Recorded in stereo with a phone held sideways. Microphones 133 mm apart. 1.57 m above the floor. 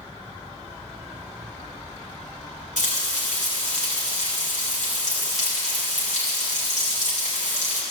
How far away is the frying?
About 3.5 m.